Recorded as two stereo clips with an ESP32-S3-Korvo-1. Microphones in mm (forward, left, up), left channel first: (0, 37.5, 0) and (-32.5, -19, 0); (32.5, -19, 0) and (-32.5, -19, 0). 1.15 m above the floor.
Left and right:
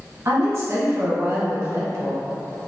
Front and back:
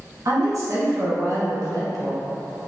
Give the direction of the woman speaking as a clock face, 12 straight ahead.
5 o'clock.